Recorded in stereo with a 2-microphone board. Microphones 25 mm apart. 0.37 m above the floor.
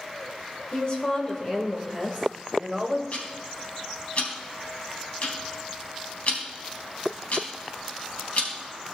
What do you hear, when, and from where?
0.7 s a woman speaking: 40° left (ahead or behind), 1.8 m; by 3.0 s 10° right (ahead or behind), 2 m
3.1 s ticking: 55° left (ahead or behind), 3 m